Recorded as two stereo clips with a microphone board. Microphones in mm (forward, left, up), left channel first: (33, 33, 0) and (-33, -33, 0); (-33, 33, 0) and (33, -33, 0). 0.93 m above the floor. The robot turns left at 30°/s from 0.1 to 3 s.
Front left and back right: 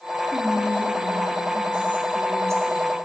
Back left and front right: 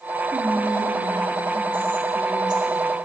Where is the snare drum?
I don't hear a snare drum.